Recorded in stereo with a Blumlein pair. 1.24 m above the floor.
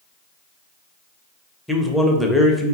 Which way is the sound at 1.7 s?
5° left.